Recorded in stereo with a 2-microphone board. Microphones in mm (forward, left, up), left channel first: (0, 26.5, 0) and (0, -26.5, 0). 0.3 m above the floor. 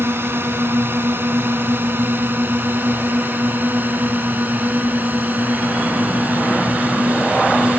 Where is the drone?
50° right (ahead or behind); by 7.8 s 30° right (ahead or behind).